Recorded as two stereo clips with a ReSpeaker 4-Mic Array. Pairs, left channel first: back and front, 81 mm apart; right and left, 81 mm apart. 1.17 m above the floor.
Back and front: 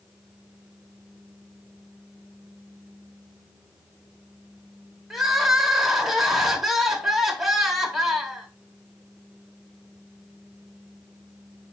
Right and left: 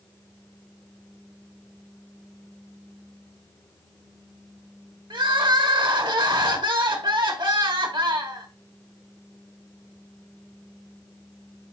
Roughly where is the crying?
Left.